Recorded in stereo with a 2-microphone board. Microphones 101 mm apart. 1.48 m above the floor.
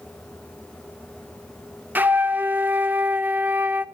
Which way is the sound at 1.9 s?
20° right (ahead or behind).